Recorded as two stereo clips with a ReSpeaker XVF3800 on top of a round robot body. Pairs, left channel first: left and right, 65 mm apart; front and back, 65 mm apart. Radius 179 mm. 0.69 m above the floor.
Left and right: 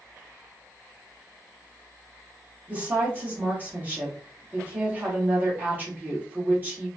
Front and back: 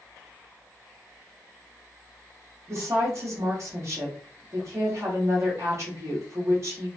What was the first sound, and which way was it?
A woman speaking, 150° right.